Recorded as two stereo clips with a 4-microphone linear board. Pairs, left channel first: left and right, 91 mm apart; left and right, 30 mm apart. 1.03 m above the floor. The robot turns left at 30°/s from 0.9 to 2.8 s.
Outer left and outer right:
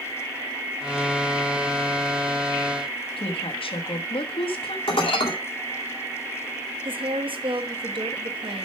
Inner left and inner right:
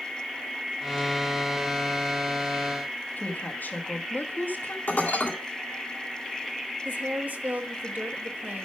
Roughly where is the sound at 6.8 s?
Right.